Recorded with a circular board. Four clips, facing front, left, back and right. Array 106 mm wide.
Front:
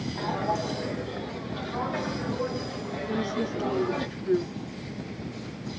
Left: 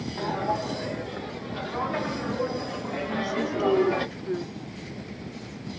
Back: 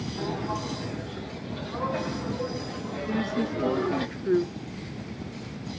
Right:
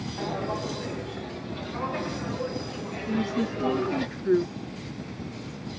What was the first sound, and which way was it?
Footsteps, 50° left.